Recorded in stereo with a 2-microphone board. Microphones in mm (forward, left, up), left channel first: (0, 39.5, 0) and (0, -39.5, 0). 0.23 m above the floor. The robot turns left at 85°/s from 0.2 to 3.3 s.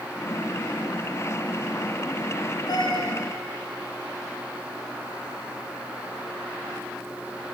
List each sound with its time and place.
2.7 s a cat meowing: 120° left, 2.5 m; by 3.1 s 80° left, 2.5 m